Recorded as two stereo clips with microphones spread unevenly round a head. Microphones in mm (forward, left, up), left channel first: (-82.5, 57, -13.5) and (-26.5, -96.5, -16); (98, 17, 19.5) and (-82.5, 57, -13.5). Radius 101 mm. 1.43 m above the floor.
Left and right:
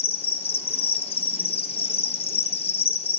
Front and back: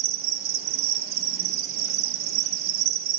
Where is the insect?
165° left, 0.8 m.